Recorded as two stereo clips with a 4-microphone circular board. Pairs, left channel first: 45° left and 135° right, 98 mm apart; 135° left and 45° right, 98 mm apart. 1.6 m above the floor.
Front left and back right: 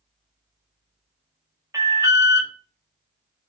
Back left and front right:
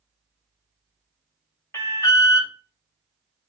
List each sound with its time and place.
1.7 s an alarm: 175° right, 0.9 m